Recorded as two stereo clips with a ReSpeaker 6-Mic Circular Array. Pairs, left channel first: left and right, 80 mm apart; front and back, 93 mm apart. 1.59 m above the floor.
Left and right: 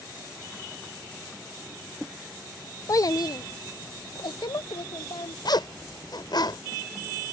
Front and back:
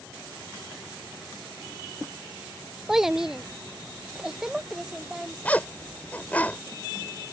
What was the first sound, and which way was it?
A child speaking, 95° left.